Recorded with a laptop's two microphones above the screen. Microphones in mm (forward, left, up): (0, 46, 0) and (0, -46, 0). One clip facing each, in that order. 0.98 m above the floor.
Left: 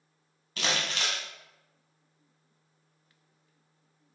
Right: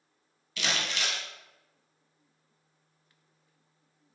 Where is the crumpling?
40° left (ahead or behind), 1.1 m.